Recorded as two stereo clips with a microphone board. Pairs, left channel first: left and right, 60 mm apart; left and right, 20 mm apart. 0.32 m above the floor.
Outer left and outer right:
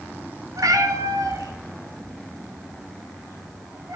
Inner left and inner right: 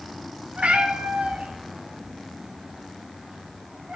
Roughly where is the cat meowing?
Right.